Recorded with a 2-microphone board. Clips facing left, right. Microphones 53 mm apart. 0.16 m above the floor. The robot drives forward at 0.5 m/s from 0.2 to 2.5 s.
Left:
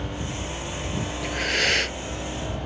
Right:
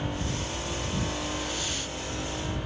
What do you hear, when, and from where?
0.0 s a helicopter: 65° left (ahead or behind)
1.2 s breathing: 70° left (ahead or behind); by 2.0 s 65° left (ahead or behind)